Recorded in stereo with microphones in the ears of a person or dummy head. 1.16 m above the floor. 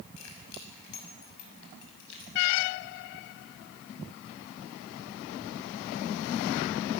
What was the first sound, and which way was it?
Keys jangling, 75° left (ahead or behind).